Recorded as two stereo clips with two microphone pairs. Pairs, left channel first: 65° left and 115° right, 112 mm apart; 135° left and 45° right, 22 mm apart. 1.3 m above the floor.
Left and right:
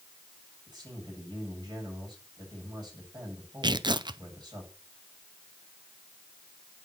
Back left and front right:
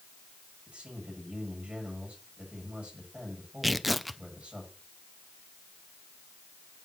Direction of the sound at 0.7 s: 65° right.